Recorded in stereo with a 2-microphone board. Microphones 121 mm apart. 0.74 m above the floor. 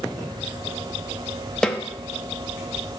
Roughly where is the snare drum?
Centre.